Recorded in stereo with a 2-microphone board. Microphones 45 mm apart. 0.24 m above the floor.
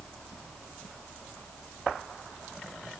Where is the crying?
No crying in this recording.